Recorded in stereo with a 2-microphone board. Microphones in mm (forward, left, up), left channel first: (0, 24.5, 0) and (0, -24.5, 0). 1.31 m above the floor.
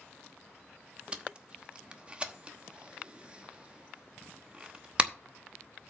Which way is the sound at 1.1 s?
25° right (ahead or behind).